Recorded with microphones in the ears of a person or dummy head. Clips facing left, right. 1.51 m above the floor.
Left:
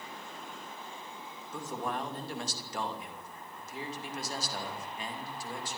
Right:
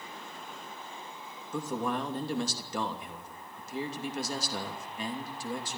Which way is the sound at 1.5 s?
85° right.